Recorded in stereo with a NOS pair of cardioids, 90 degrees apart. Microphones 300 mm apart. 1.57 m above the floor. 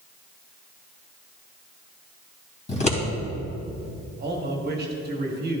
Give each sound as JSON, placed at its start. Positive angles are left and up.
{"t": 2.7, "sound": "scissors", "azimuth_deg": 25, "distance_m": 2.5}
{"t": 4.2, "sound": "a man speaking", "azimuth_deg": -35, "distance_m": 1.5}